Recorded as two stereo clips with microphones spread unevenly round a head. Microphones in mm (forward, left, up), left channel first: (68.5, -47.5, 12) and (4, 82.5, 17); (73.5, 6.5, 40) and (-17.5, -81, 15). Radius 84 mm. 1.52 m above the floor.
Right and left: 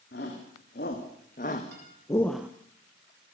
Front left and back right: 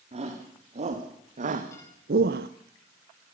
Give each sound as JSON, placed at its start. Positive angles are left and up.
{"t": 0.1, "sound": "a shout", "azimuth_deg": -100, "distance_m": 3.5}
{"t": 1.7, "sound": "a guitar", "azimuth_deg": 115, "distance_m": 7.0}